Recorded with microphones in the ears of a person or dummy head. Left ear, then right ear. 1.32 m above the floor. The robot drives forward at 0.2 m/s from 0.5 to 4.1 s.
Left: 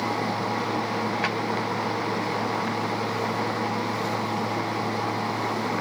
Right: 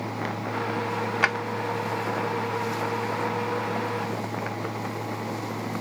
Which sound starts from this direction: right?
A drawer, at 1.2 s.